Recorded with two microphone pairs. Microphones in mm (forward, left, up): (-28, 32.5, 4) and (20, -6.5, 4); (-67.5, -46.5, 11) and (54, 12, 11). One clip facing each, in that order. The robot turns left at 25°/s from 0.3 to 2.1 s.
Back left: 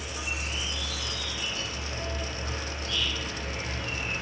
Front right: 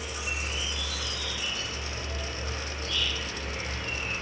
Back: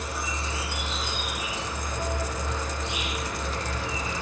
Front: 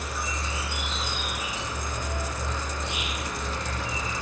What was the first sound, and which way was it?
An insect, 90° right.